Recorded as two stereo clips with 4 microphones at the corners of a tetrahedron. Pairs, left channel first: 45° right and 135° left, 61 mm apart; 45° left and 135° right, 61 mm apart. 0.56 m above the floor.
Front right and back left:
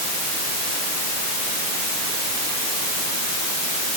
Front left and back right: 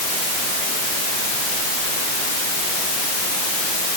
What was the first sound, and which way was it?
Only background noise.